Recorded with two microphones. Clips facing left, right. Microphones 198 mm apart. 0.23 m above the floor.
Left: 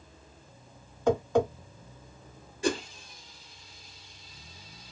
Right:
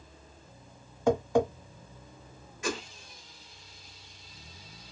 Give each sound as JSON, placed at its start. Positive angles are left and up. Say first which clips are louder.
{"t": 1.1, "sound": "tapping", "louder": "even", "side_deg": -10, "distance_m": 1.6}
{"t": 2.6, "sound": "a whoosh", "louder": "left 6 dB", "side_deg": 35, "distance_m": 0.9}